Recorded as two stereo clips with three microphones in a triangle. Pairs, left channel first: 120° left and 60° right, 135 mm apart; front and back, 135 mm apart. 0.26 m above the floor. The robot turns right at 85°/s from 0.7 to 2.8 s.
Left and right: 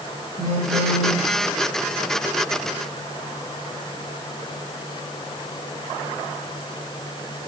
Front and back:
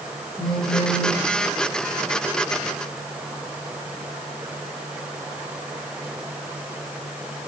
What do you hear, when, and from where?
0.4 s a phone buzzing: 85° right, 5.5 m; by 1.2 s 40° right, 5.5 m